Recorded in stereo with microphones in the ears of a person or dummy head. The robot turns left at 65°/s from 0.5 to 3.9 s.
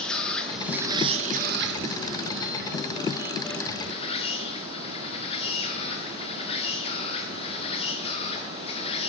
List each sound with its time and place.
0.0 s an insect: 10° left, 1.0 m; by 9.1 s 145° left, 1.0 m